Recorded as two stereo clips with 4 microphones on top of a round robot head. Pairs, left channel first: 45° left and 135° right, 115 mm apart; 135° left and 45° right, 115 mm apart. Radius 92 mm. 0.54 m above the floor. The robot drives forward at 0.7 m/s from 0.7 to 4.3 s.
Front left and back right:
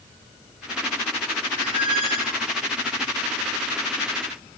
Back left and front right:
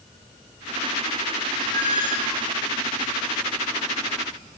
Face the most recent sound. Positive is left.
turn(degrees=-175)